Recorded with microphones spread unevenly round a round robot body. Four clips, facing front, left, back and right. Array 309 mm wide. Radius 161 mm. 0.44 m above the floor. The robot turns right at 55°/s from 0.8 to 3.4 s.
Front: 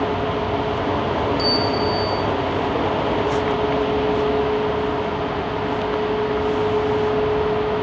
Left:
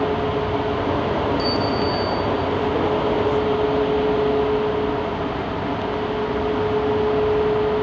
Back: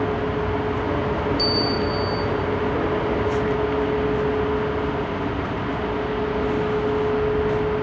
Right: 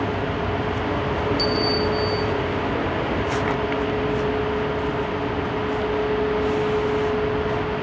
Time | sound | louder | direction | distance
1.4 | a bell | left 1 dB, front 2 dB | 105° right | 4 m